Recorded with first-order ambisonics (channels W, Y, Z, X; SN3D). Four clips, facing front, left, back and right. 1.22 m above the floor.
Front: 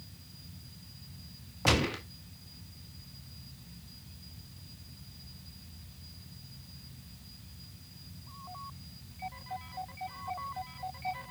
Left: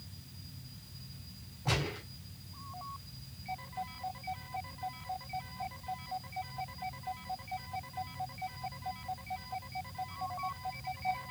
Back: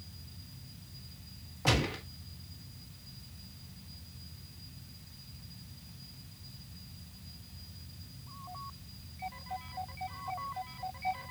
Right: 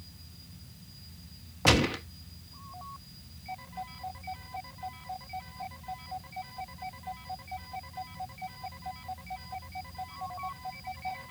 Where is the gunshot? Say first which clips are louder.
Right 10 dB, front 2 dB; 75° right, 1.9 m.